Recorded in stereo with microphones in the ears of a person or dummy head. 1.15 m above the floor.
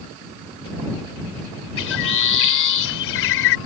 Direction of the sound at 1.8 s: 60° left (ahead or behind).